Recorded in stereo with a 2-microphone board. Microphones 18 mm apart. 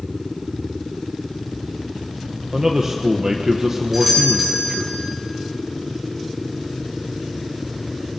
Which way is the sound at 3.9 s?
25° right (ahead or behind).